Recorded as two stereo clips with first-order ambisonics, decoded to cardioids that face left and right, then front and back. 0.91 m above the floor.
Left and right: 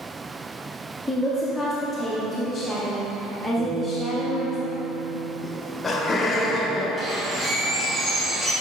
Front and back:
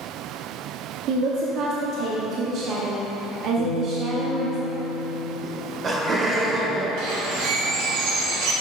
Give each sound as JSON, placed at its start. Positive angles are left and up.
{"t": 1.1, "sound": "a woman speaking", "azimuth_deg": 180, "distance_m": 0.7}
{"t": 3.6, "sound": "a guitar", "azimuth_deg": -45, "distance_m": 1.4}
{"t": 5.4, "sound": "laughter", "azimuth_deg": 140, "distance_m": 0.8}
{"t": 7.0, "sound": "a bird", "azimuth_deg": -165, "distance_m": 1.4}